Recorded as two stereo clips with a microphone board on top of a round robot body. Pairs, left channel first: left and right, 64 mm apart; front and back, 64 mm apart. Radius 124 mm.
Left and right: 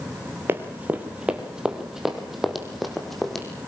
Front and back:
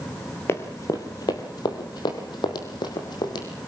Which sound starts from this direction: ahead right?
Running footsteps, at 0.5 s.